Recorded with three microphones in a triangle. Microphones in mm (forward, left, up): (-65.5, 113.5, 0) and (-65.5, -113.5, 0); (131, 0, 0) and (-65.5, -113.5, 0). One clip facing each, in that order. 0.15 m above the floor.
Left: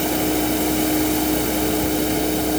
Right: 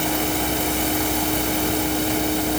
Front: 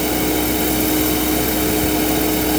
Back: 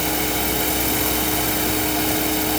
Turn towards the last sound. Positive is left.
No sound to turn to.